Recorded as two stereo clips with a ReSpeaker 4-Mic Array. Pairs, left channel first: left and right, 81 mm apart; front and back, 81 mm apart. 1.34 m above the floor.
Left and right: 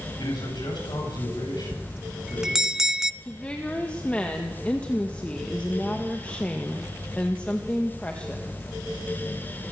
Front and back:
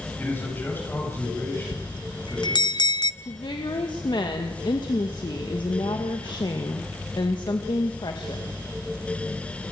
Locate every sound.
0.2 s a man speaking: 60° left, 9 m
1.7 s a bell: 5° right, 0.6 m
3.2 s a woman speaking: 15° left, 1.7 m